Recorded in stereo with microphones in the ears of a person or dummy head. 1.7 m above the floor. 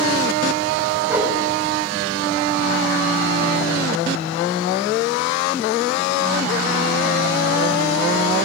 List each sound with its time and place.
1.1 s a whoosh: centre (ahead or behind), 6.5 m